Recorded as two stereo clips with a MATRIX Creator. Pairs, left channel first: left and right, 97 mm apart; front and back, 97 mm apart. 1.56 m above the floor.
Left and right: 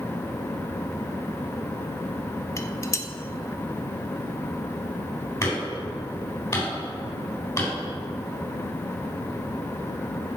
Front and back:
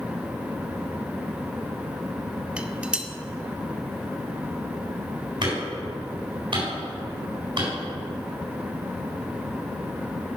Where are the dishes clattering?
110° left, 0.6 m.